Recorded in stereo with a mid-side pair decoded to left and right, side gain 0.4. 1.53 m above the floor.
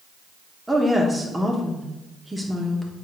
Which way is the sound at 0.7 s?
15° right.